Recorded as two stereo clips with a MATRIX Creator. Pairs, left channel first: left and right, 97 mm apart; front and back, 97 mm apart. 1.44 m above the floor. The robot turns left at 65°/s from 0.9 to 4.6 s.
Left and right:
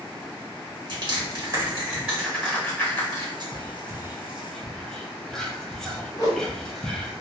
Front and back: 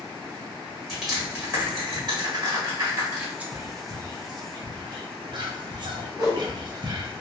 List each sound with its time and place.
0.9 s crushing: 85° right, 1.6 m; by 3.3 s 120° left, 1.6 m
3.4 s whispering: 110° right, 0.6 m; by 7.1 s 175° left, 0.6 m
6.1 s a whoosh: 135° left, 1.1 m